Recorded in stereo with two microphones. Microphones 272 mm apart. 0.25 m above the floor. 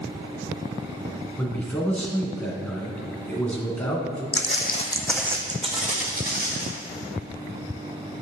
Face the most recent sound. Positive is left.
turn(degrees=-40)  # may be behind; listen again after turning